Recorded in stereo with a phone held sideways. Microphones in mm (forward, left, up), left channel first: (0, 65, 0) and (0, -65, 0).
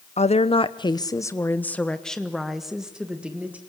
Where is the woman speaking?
60° left (ahead or behind), 0.8 m; by 3.6 s 10° right (ahead or behind), 1.9 m.